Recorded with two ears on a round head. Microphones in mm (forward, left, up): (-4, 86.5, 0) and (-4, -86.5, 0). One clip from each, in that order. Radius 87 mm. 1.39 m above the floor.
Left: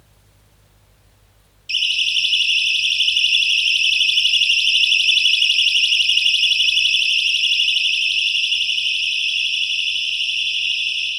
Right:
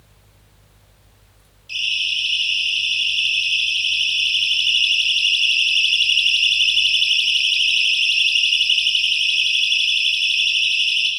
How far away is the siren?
About 8 m.